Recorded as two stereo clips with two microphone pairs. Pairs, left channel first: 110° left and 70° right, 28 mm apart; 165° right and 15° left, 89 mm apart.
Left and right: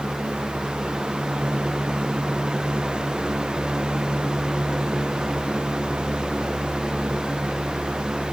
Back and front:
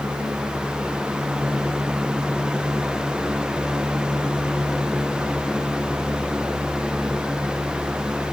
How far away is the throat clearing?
No throat clearing in this recording.